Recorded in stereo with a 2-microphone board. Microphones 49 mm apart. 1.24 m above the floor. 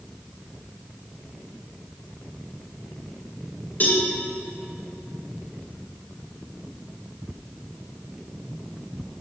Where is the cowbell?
35° left (ahead or behind), 3 m.